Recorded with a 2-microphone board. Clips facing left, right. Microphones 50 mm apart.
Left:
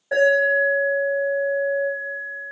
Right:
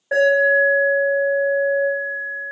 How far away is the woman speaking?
No woman speaking in this recording.